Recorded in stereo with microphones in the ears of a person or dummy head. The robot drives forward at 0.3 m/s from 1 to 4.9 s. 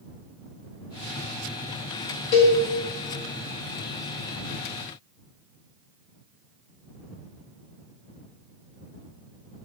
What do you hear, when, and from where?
2.3 s a cowbell: 45° left (ahead or behind), 1.0 m